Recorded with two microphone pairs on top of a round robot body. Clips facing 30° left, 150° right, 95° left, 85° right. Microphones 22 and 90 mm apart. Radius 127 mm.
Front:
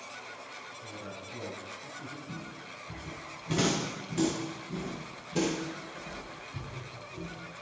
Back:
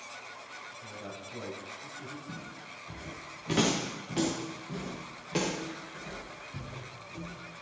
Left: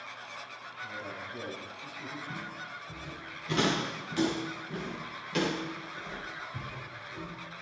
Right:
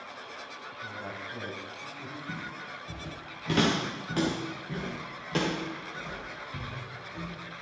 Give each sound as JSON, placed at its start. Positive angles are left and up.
{"t": 0.7, "sound": "a man speaking", "azimuth_deg": -115, "distance_m": 5.0}
{"t": 2.3, "sound": "footsteps", "azimuth_deg": -105, "distance_m": 5.0}